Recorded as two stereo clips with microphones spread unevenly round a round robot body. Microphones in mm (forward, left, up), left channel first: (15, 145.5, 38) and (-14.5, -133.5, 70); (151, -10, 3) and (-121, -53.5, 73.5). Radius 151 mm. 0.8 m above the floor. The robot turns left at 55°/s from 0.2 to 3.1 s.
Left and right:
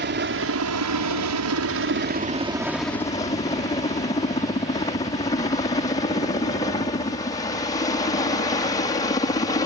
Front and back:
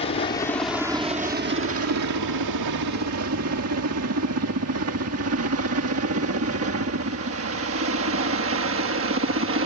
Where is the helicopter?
45° right; by 9.7 s 150° left.